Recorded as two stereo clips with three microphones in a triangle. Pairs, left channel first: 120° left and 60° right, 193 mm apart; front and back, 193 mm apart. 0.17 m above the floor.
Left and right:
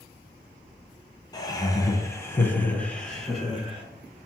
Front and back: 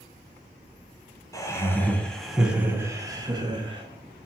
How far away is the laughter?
About 1.3 m.